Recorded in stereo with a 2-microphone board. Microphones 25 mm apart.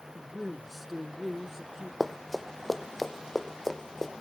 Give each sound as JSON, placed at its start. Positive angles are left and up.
{"t": 0.1, "sound": "a man speaking", "side_deg": 15, "distance_m": 1.2}
{"t": 2.0, "sound": "running footsteps", "side_deg": 5, "distance_m": 1.0}